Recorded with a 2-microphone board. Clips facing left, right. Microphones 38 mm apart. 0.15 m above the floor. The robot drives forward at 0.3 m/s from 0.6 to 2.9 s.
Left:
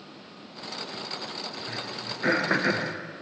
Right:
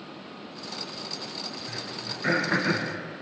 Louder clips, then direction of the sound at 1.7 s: Left 1 dB; 55° left (ahead or behind).